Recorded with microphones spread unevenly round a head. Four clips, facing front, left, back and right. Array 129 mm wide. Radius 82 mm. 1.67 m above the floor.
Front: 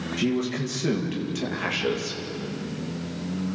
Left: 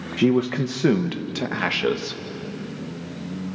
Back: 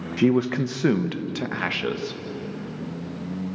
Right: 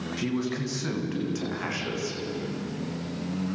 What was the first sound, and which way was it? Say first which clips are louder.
A man speaking: left 11 dB, back 6 dB; 145° left.